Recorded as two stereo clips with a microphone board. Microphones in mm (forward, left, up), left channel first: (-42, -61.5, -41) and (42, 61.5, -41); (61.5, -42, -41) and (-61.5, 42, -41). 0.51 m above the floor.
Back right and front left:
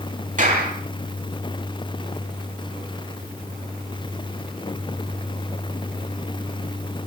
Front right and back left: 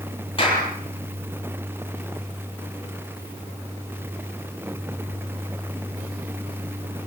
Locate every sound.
0.4 s a clap: 20° left, 10 m